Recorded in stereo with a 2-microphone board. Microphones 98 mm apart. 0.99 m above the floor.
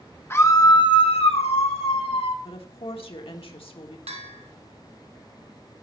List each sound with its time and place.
0.3 s a scream: 25° left (ahead or behind), 1.3 m; by 2.4 s 70° left (ahead or behind), 2.5 m
2.5 s a woman speaking: 60° left (ahead or behind), 1.5 m
4.1 s a bell: 80° right, 1.3 m